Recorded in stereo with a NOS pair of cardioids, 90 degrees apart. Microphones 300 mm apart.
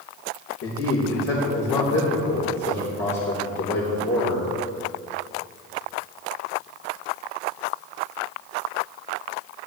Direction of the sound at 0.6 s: 60° left.